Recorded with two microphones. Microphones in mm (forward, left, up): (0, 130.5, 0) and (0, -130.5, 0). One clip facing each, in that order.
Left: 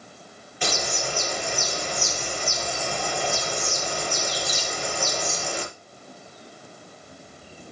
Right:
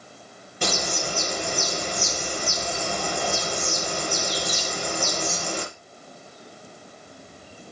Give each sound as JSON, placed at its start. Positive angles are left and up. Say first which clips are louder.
{"t": 0.6, "sound": "a bird", "louder": "right 1 dB", "side_deg": -45, "distance_m": 5.5}